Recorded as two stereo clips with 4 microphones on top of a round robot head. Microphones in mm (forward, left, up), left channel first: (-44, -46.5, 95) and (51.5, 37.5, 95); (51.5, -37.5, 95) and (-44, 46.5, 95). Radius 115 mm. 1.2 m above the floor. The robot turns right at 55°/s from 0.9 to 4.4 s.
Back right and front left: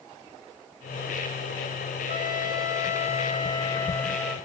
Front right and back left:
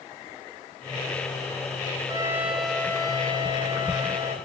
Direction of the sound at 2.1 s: 160° right.